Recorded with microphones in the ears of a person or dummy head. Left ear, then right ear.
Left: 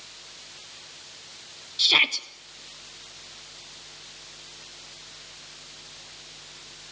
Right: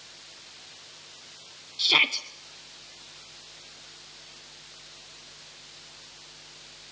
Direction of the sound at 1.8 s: 5° left (ahead or behind).